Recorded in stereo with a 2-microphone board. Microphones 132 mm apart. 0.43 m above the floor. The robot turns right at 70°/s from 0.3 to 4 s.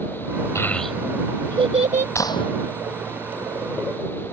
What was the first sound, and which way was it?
A child speaking, 20° left (ahead or behind).